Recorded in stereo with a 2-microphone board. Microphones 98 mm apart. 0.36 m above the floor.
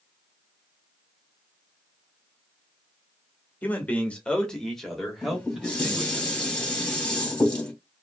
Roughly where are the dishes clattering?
Centre.